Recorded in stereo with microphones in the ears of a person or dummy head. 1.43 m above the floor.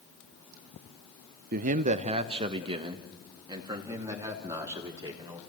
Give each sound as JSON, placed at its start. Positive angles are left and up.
{"t": 1.5, "sound": "a man speaking", "side_deg": -45, "distance_m": 0.6}